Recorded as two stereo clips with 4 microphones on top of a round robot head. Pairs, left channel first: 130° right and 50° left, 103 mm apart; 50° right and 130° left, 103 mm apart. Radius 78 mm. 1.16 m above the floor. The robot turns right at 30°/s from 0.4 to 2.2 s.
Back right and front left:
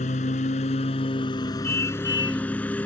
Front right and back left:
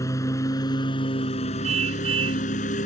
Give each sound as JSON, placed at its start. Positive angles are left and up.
{"t": 0.0, "sound": "a lawn mower", "azimuth_deg": -110}
{"t": 1.6, "sound": "a car horn", "azimuth_deg": 155}